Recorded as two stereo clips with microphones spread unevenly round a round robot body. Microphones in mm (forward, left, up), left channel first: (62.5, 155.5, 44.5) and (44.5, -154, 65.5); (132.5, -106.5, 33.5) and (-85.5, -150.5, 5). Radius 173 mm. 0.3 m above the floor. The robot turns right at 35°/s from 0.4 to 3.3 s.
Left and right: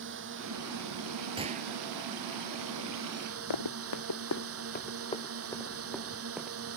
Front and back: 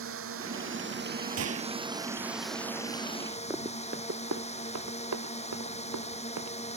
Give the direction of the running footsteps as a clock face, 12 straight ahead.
8 o'clock.